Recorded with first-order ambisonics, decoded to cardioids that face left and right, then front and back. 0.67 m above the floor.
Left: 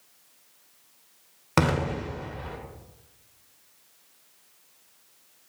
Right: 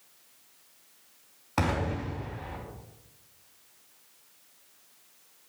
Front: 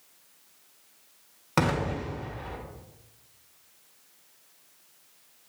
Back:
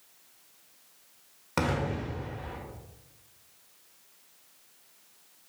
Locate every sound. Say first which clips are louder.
1.6 s an explosion: left 4 dB, front 3 dB; 80° left, 1.3 m